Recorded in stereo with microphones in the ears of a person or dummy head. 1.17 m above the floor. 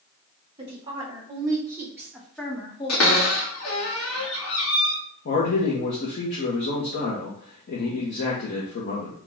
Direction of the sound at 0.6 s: 30° right (ahead or behind).